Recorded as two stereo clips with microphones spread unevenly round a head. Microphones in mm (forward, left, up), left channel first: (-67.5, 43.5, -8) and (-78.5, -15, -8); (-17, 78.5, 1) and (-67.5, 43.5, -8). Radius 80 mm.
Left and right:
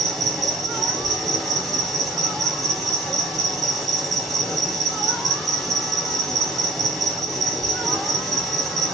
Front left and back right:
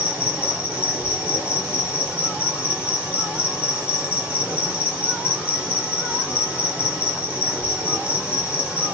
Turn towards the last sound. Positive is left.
turn(degrees=165)